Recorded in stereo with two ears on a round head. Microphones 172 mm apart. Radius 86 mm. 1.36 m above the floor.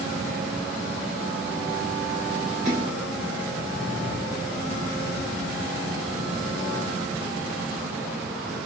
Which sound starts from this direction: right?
A splash, at 2.6 s.